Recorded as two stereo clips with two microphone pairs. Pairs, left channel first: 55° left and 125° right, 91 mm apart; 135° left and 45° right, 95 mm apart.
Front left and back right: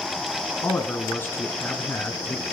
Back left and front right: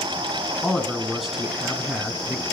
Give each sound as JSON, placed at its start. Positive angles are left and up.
{"t": 0.6, "sound": "a man speaking", "azimuth_deg": 40, "distance_m": 1.6}